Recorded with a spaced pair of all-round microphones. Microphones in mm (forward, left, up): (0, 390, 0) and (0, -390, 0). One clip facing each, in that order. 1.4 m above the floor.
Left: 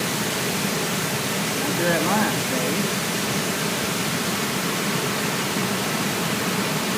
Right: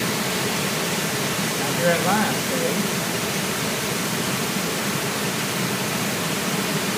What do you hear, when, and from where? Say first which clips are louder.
1.6 s a man speaking: right 1 dB; 20° right (ahead or behind), 2.5 m